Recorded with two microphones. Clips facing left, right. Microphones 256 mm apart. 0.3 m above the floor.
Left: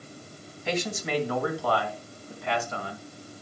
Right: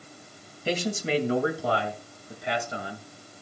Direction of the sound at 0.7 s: 35° right (ahead or behind).